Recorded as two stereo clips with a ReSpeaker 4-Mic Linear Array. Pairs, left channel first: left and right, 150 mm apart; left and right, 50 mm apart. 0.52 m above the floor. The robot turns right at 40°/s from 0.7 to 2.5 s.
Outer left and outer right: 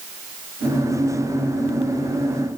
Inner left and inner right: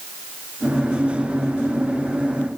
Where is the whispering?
I don't hear whispering.